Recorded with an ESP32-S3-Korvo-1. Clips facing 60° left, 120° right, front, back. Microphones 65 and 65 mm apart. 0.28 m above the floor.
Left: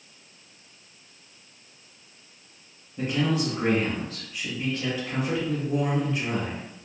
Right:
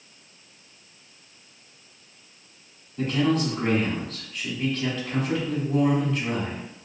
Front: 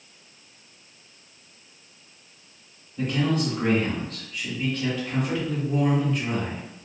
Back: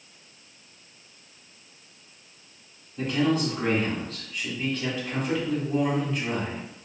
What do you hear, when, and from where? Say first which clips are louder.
3.0 s a man speaking: right 3 dB, back 1 dB; 95° left, 1.0 m